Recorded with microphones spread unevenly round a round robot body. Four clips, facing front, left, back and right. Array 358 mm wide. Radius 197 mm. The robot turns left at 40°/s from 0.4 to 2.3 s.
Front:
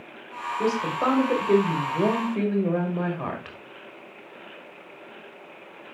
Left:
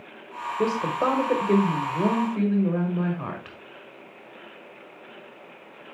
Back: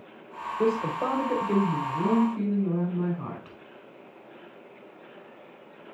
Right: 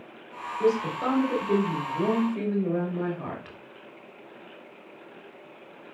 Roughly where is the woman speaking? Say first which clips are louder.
Even, front 1 dB; left.